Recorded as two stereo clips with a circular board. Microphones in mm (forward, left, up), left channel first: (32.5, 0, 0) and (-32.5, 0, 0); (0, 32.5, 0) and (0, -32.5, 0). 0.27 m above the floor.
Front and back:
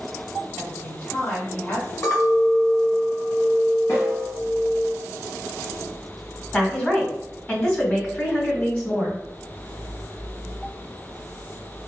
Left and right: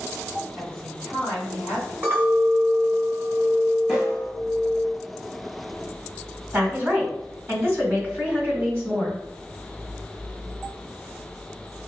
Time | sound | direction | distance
0.6 | a woman speaking | 20° left | 1.6 m
2.0 | a clink | 35° right | 1.3 m
3.9 | a snare drum | 5° right | 1.1 m
6.5 | a woman speaking | 55° right | 2.0 m